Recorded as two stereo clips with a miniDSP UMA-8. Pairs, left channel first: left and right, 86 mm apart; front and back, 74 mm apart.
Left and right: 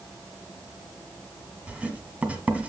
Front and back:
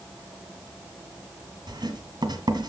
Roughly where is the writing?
Behind.